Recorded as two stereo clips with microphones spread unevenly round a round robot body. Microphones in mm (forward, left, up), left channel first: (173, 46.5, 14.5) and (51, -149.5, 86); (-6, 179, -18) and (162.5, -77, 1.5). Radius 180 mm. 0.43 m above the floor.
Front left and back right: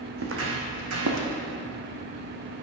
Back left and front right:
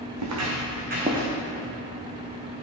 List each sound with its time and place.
0.2 s footsteps: 100° right, 2 m; by 1.3 s 135° right, 1.7 m